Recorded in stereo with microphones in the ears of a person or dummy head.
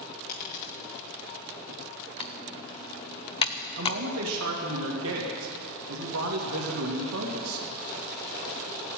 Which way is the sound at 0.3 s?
45° left (ahead or behind).